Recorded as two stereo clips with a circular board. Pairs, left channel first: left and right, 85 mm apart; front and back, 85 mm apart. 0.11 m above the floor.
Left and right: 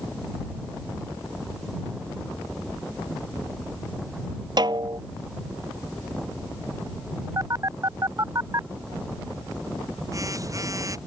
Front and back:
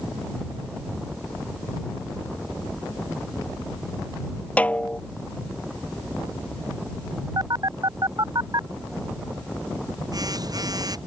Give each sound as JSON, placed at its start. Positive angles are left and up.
{"t": 4.6, "sound": "a snare drum", "azimuth_deg": -70}
{"t": 7.4, "sound": "a phone buzzing", "azimuth_deg": -140}